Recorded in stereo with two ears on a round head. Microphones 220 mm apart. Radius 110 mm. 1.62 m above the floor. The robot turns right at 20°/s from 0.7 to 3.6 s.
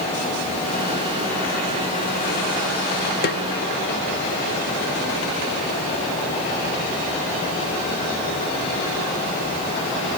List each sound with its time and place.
3.2 s a snare drum: 40° left (ahead or behind), 0.8 m; by 3.4 s 45° left (ahead or behind), 0.8 m